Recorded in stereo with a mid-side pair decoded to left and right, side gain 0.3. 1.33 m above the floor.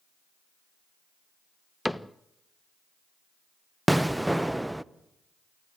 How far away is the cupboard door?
About 0.8 m.